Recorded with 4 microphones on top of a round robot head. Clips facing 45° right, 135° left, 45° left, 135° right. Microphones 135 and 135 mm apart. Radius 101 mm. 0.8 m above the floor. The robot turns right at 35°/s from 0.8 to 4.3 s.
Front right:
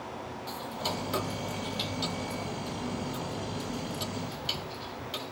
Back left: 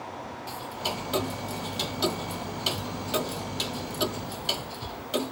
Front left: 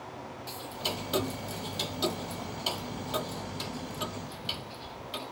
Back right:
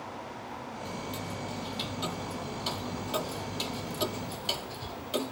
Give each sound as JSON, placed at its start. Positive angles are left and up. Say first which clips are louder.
{"t": 0.5, "sound": "ticking", "louder": "back left 1 dB, front left 4 dB", "azimuth_deg": 55}